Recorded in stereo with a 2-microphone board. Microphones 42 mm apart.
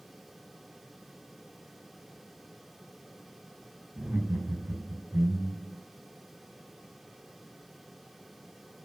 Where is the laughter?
45° right (ahead or behind), 3.5 m; by 5.8 s 55° right (ahead or behind), 2.5 m.